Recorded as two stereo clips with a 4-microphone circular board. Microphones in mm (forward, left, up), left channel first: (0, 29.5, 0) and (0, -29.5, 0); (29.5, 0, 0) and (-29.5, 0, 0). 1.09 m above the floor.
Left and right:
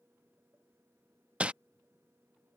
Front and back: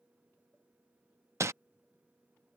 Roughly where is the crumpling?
Behind right.